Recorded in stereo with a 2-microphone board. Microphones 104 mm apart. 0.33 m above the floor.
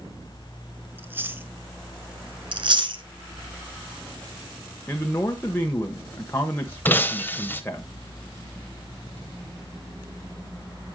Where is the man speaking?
20° left (ahead or behind), 1.1 m.